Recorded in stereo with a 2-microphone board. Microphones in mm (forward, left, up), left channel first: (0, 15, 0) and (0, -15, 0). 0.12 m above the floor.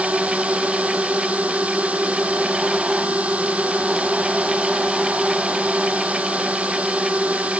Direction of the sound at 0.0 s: 55° right (ahead or behind).